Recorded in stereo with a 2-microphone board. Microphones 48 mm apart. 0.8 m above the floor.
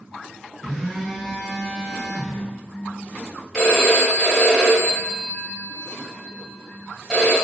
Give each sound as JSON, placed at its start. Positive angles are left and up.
{"t": 0.6, "sound": "a phone buzzing", "side_deg": -5, "distance_m": 0.6}
{"t": 3.5, "sound": "a phone ringing", "side_deg": 0, "distance_m": 1.4}